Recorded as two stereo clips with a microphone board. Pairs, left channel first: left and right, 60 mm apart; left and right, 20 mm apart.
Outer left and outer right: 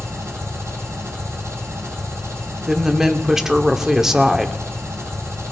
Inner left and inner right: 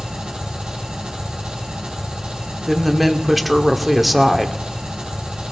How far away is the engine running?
About 6.5 m.